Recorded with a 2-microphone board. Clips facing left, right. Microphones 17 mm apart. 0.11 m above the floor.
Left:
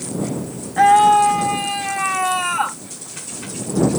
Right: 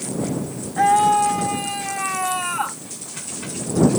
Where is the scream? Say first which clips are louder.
Left 4 dB; 20° left (ahead or behind); by 2.8 s 15° left (ahead or behind).